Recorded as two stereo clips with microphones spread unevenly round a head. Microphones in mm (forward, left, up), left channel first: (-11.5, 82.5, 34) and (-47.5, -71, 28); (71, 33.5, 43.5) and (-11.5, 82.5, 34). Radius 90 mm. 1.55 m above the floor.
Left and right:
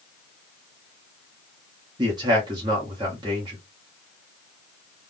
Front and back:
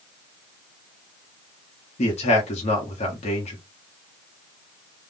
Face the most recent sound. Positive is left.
turn(degrees=-35)